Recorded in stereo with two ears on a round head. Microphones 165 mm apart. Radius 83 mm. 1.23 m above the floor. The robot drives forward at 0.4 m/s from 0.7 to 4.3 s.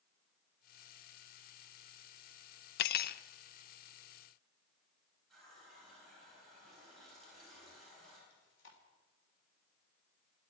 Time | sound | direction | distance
2.8 | cutlery clinking | 60° left (ahead or behind) | 0.5 m
5.3 | a running tap | centre (ahead or behind) | 9.5 m
8.3 | chewing | 70° left (ahead or behind) | 3 m